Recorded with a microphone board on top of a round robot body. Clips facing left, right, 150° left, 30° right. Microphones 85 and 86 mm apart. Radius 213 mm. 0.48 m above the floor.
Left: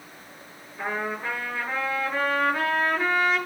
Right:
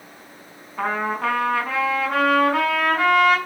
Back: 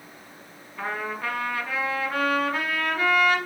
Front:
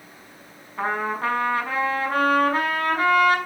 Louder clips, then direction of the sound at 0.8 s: Right 6 dB, front 6 dB; 75° right.